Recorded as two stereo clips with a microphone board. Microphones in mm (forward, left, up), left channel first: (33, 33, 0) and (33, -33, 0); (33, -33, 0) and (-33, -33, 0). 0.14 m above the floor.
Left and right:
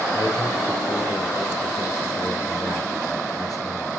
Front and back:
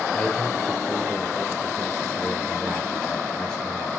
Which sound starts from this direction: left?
A man speaking, at 0.1 s.